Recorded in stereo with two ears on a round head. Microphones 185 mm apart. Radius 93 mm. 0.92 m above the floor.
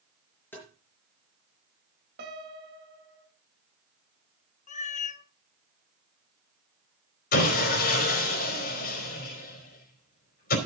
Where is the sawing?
50° left (ahead or behind), 3 m.